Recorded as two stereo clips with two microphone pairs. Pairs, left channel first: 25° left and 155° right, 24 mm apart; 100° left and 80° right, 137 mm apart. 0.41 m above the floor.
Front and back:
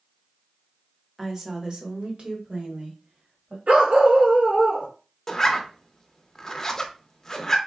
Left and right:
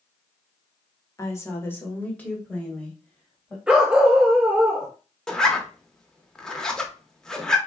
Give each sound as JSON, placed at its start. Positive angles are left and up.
{"t": 1.2, "sound": "a woman speaking", "azimuth_deg": 145, "distance_m": 0.9}
{"t": 3.7, "sound": "a dog barking", "azimuth_deg": -160, "distance_m": 1.6}
{"t": 5.3, "sound": "a zipper", "azimuth_deg": 25, "distance_m": 0.6}